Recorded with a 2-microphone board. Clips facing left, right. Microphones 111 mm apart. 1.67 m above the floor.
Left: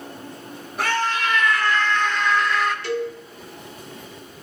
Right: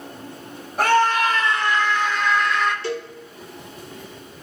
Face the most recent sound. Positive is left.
turn(degrees=-30)  # may be behind; listen again after turning